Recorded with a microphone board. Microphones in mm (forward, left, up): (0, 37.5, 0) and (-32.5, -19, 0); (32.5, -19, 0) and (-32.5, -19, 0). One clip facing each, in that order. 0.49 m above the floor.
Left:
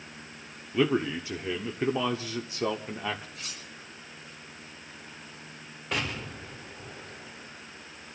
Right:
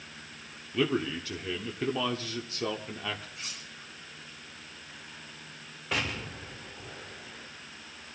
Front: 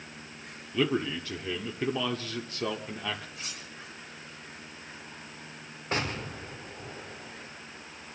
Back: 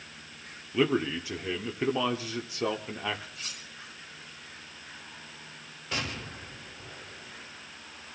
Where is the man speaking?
115° left, 0.9 m.